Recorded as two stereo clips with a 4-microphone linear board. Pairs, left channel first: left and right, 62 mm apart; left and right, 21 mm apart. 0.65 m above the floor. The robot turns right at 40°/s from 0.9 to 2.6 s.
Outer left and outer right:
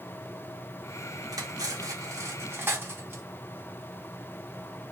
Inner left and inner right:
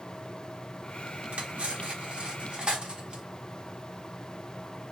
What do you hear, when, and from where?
1.3 s cutlery clinking: 80° right, 0.7 m; by 3.2 s 40° right (ahead or behind), 0.7 m